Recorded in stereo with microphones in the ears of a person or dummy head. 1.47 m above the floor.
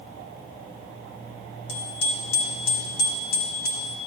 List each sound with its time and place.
1.7 s a bicycle bell: 70° left (ahead or behind), 3 m; by 4.0 s 50° left (ahead or behind), 2 m